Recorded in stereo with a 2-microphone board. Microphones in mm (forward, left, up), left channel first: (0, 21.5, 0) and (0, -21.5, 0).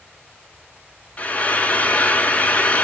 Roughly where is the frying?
Left.